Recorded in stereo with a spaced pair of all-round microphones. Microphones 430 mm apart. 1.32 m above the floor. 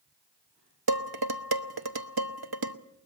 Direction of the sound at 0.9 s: 60° right (ahead or behind).